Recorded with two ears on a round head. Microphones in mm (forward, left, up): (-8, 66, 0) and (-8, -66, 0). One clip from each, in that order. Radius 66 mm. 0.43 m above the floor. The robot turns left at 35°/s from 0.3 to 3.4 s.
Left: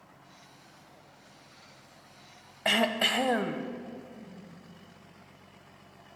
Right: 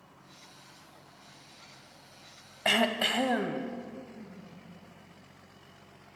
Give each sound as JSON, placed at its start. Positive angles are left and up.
{"t": 2.6, "sound": "throat clearing", "side_deg": -5, "distance_m": 0.6}
{"t": 4.1, "sound": "a whoosh", "side_deg": 10, "distance_m": 5.5}